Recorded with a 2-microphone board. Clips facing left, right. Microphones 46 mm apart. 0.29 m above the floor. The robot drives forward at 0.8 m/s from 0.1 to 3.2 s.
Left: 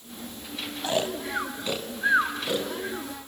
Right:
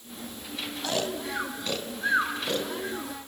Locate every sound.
0.8 s snoring: 25° left (ahead or behind), 1.0 m; by 3.1 s 10° left (ahead or behind), 2.5 m